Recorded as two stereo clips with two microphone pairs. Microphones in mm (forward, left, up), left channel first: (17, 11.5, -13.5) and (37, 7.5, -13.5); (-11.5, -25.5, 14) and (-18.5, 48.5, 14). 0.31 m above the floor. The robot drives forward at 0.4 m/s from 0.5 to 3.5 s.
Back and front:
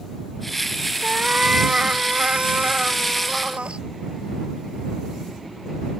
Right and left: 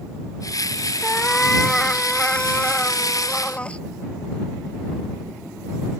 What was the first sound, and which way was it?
A cat meowing, 5° right.